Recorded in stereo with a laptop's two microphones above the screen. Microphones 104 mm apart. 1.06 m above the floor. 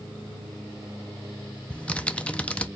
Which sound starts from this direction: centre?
Typing on a keyboard, at 1.7 s.